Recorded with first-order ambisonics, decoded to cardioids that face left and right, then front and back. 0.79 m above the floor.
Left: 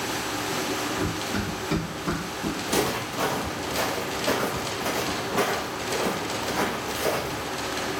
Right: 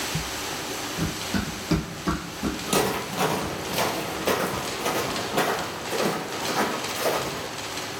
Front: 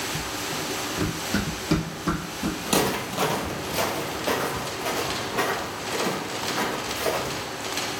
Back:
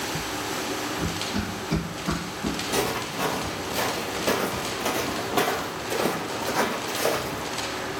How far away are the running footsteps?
About 1.2 m.